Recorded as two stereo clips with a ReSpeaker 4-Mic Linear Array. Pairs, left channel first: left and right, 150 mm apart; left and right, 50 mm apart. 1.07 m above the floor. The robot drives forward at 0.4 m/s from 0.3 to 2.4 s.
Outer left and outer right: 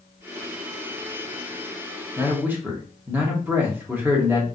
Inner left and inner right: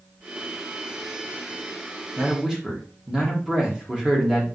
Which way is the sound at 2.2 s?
15° right (ahead or behind).